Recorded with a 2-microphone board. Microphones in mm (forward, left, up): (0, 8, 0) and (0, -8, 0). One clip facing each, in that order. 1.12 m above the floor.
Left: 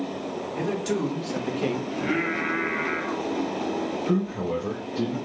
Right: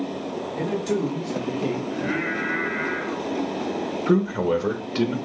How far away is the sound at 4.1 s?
About 0.8 m.